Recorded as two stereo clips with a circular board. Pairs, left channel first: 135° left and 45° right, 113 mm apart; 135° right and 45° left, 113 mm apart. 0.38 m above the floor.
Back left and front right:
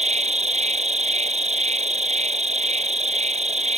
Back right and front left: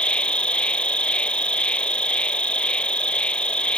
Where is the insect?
55° right.